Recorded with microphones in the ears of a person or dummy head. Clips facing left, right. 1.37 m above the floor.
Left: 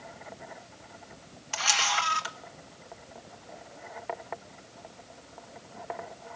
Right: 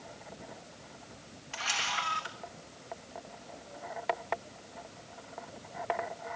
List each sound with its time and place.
1.5 s a camera shutter: 55° left (ahead or behind), 0.9 m